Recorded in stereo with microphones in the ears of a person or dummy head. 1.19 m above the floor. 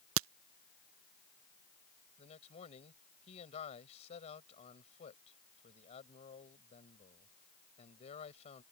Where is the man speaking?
35° left (ahead or behind).